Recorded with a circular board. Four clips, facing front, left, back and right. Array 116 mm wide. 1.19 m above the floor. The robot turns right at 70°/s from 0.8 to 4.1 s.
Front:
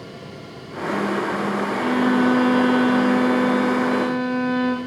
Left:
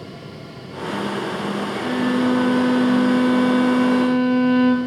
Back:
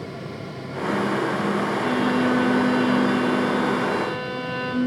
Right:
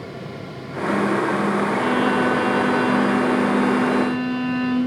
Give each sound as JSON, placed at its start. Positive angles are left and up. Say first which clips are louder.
{"t": 1.7, "sound": "a violin", "louder": "left 2 dB, front 6 dB", "azimuth_deg": -90, "distance_m": 5.5}